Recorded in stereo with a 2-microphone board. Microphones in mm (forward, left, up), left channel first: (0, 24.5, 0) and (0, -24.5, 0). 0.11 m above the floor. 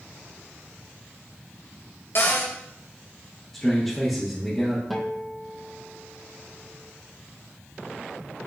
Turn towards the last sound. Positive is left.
turn(degrees=0)  # may be behind; listen again after turning